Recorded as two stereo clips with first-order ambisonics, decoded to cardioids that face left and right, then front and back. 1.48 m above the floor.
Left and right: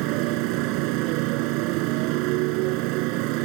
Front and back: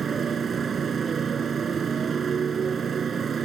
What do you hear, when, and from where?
0.0 s a motorcycle: 110° right